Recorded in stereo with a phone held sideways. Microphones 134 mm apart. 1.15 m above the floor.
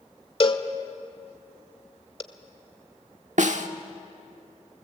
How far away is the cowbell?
About 1.3 m.